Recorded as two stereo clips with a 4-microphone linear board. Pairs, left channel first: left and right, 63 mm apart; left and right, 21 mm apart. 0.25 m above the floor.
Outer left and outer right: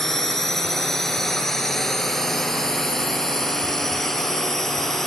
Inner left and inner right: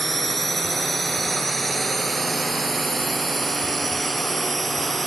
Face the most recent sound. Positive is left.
turn(degrees=5)  # may be behind; listen again after turning